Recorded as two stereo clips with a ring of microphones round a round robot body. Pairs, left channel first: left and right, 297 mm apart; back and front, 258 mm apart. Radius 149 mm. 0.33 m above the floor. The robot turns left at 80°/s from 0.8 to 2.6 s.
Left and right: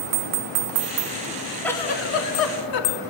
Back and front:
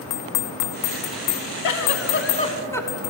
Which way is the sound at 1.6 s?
175° left.